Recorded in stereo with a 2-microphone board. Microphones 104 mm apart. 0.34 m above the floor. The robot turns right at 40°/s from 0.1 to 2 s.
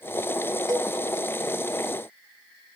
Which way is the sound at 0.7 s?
40° right (ahead or behind).